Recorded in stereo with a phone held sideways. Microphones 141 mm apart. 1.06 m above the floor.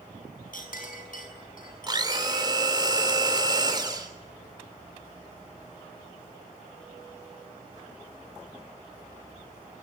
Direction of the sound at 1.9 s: 30° right (ahead or behind).